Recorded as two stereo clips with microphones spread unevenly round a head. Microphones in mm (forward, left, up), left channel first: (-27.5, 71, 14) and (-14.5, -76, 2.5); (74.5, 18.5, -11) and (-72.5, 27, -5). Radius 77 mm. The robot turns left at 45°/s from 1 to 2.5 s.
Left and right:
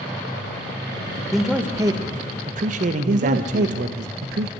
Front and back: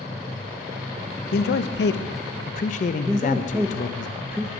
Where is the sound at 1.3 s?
5° left, 0.6 m; by 4.1 s 45° right, 0.6 m.